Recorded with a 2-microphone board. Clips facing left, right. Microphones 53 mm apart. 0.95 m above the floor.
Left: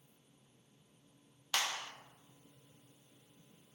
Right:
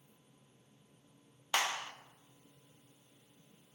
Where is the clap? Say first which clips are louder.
Right 3 dB; 25° right (ahead or behind), 0.6 m.